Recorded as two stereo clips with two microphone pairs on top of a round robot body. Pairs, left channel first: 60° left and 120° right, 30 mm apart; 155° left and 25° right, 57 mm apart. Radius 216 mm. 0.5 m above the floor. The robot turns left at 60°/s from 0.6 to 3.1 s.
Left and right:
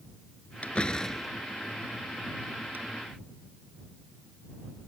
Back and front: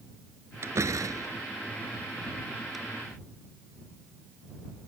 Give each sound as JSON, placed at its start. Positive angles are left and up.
{"t": 0.6, "sound": "a door slam", "azimuth_deg": 15}